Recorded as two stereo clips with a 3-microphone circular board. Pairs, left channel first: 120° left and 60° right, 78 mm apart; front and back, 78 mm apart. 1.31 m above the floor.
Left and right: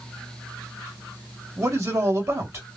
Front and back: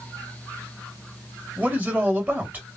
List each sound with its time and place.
1.6 s a man speaking: 110° right, 2 m